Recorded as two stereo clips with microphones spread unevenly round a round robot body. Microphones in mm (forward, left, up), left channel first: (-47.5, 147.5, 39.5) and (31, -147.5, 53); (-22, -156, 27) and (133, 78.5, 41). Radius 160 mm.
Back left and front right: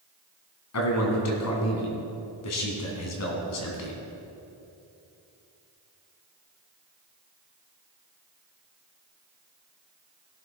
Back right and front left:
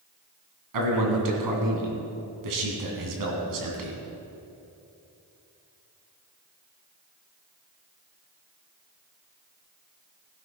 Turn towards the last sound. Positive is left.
turn(degrees=70)